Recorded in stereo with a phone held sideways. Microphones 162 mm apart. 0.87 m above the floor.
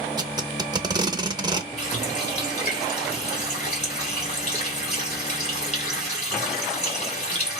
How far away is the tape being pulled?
About 0.6 m.